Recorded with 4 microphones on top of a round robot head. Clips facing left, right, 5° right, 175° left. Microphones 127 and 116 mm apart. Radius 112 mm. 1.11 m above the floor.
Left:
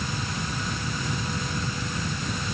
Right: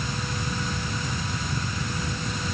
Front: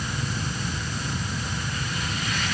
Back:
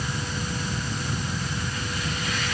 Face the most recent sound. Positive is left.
No sound to turn to.